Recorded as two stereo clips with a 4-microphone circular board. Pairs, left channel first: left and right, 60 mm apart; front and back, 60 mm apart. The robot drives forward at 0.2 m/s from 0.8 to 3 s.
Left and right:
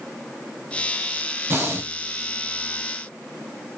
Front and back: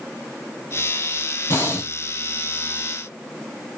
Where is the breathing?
35° right, 0.8 m; by 1.9 s 40° right, 0.7 m.